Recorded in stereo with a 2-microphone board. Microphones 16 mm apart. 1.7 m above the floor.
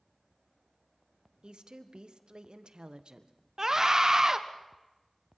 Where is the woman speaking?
75° right (ahead or behind), 1.7 m.